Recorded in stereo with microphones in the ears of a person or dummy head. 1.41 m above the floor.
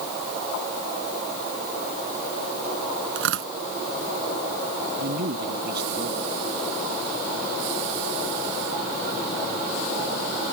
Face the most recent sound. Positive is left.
turn(degrees=-50)  # may be behind; listen again after turning